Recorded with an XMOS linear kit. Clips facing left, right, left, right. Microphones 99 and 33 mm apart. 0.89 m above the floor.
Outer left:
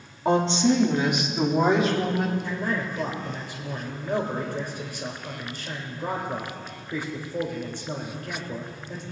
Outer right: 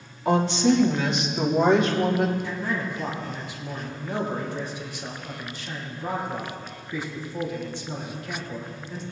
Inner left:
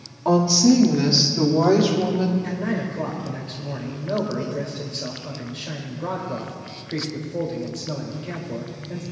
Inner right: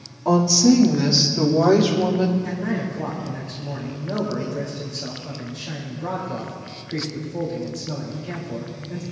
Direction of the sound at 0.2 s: 30° left (ahead or behind).